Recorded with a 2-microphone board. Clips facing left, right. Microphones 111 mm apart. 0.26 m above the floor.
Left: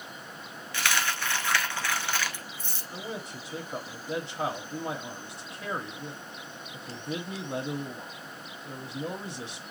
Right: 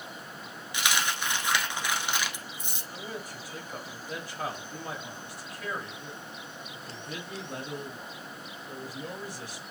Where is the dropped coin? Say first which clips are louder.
Even; 15° right (ahead or behind), 1.1 m.